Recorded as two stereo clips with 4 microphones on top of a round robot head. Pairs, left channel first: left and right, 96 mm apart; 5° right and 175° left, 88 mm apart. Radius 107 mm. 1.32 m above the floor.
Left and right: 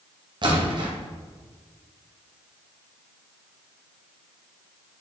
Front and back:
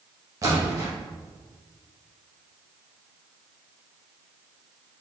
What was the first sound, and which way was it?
A splash, 130° right.